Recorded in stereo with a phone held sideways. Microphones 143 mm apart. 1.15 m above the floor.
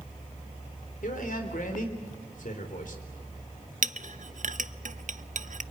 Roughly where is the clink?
Right.